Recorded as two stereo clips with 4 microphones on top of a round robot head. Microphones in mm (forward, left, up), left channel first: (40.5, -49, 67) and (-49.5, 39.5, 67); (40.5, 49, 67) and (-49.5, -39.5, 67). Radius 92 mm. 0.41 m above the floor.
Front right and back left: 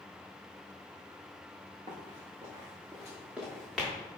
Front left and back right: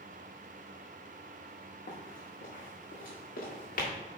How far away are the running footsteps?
About 2.5 m.